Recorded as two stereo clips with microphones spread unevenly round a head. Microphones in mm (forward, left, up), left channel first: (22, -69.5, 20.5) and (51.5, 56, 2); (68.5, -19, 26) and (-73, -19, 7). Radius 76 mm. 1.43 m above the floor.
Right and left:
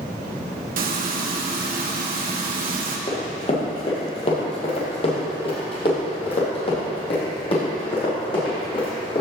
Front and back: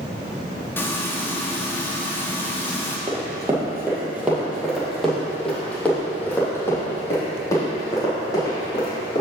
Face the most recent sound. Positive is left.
turn(degrees=-60)